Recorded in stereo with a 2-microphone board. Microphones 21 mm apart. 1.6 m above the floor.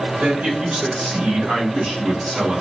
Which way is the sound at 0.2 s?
70° right (ahead or behind).